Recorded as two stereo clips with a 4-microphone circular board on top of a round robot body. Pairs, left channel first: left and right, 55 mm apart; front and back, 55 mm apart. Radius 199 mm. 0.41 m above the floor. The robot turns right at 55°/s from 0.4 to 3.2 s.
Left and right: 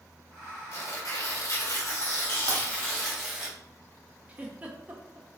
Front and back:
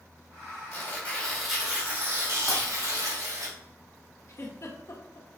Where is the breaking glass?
65° right, 2.5 m; by 2.6 s 55° right, 2.5 m.